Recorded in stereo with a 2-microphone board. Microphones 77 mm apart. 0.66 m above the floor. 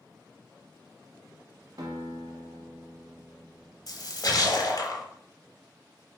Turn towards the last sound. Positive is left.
turn(degrees=50)  # may be behind; listen again after turning